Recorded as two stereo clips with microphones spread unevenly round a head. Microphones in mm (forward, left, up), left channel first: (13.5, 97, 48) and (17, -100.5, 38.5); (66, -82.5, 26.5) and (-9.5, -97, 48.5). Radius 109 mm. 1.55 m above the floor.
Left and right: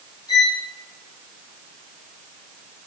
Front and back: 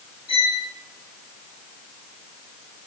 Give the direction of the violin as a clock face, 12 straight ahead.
11 o'clock.